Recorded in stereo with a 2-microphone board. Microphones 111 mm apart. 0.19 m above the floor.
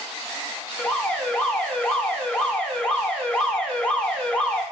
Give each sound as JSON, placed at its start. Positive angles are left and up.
{"t": 0.8, "sound": "an alarm", "side_deg": 10, "distance_m": 1.0}